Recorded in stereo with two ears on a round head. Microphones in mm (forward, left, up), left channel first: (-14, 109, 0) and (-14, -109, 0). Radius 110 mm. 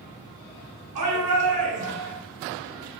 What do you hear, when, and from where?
0.9 s a shout: 70° right (ahead or behind), 6 m